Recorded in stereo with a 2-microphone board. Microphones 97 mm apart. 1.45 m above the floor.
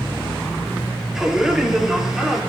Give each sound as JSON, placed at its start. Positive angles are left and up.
{"t": 1.1, "sound": "a man speaking", "side_deg": -5, "distance_m": 4.0}